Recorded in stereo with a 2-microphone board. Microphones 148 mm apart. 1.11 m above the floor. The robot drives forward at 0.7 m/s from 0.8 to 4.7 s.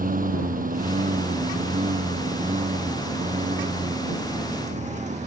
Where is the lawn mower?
70° right (ahead or behind); by 5.3 s 55° right (ahead or behind).